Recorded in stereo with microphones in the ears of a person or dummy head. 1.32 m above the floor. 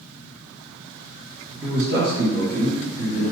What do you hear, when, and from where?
1.6 s a man speaking: 80° right, 1.6 m